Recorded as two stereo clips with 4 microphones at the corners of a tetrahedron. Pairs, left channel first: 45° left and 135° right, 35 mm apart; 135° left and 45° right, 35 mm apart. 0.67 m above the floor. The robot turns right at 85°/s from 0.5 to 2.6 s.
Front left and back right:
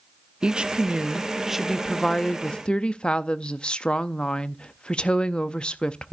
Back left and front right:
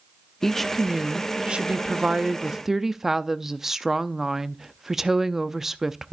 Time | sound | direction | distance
0.4 | a woman speaking | 155° right | 0.5 m